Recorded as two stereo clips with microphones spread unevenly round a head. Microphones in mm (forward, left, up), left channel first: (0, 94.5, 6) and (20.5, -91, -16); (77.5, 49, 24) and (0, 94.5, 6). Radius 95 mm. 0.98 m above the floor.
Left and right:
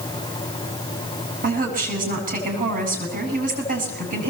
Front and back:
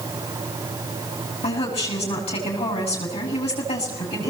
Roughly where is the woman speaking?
Ahead right.